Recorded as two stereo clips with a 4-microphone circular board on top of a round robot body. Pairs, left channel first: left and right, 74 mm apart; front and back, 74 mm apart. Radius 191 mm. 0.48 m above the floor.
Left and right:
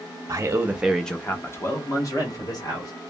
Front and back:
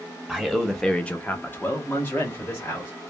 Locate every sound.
0.3 s a man speaking: 105° right, 0.9 m; by 2.9 s 60° left, 2.0 m